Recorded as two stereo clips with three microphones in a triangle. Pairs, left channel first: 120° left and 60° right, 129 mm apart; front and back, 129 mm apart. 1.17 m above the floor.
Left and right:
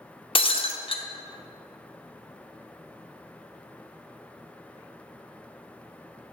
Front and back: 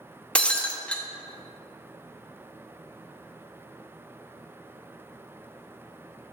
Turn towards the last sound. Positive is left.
turn(degrees=80)